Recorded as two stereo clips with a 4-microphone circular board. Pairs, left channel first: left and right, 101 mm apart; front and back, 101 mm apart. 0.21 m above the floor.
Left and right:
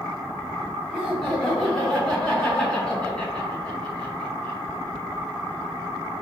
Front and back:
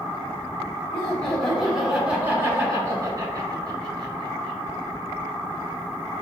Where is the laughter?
5° left, 1.4 m; by 4.6 s 165° left, 2.5 m.